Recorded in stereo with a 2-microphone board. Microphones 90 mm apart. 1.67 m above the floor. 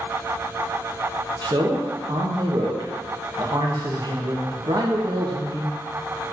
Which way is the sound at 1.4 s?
55° right (ahead or behind).